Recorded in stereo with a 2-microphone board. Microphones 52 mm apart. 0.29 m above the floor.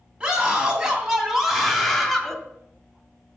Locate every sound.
0.2 s a scream: 20° right (ahead or behind), 2.5 m; by 2.4 s 5° left (ahead or behind), 1.8 m